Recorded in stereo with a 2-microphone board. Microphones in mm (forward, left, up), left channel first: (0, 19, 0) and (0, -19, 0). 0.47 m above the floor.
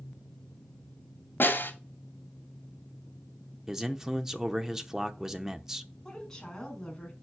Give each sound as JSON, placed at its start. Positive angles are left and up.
{"t": 1.4, "sound": "a snare drum", "side_deg": 65, "distance_m": 2.5}
{"t": 3.7, "sound": "a man speaking", "side_deg": -10, "distance_m": 0.8}
{"t": 6.0, "sound": "a woman speaking", "side_deg": 15, "distance_m": 4.5}